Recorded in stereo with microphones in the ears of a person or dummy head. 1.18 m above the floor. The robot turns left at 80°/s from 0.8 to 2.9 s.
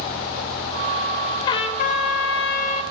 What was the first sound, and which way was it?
A trumpet, 150° left.